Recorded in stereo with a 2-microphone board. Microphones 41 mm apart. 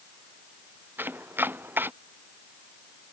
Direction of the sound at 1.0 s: 55° right (ahead or behind).